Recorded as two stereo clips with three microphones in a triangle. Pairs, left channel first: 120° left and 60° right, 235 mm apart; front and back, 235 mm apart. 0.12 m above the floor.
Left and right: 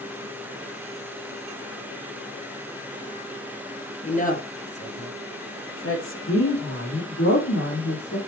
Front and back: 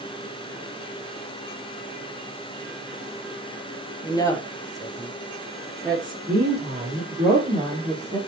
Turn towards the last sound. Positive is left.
turn(degrees=120)